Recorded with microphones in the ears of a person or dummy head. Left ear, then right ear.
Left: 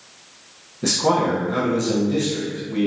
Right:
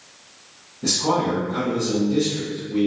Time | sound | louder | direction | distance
0.8 | a man speaking | left 2 dB | 55° left (ahead or behind) | 1.0 m